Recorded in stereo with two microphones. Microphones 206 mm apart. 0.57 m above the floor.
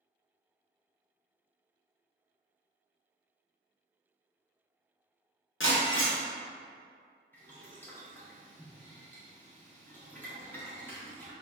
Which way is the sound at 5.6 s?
75° left (ahead or behind).